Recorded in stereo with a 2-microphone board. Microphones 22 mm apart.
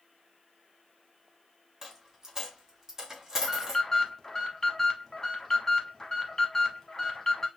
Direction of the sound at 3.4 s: 25° left (ahead or behind).